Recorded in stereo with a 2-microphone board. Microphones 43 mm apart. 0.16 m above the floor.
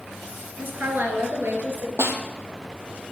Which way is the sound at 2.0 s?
70° right (ahead or behind).